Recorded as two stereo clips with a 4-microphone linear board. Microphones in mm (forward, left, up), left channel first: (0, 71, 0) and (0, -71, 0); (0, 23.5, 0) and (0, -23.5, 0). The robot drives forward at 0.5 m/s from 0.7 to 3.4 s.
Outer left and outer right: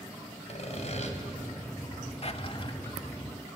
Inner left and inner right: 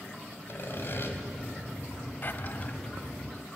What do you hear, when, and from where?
0.5 s sawing: 50° left (ahead or behind), 2.5 m; by 1.1 s 55° left (ahead or behind), 2 m
2.2 s a drawer: 45° left (ahead or behind), 0.8 m; by 2.8 s 35° left (ahead or behind), 1.0 m